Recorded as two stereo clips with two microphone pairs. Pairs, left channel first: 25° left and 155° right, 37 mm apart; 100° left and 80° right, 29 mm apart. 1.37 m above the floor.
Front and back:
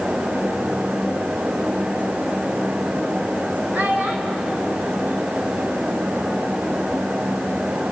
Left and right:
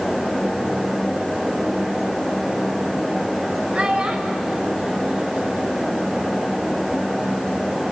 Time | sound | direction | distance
3.7 | a child speaking | 115° right | 3.5 m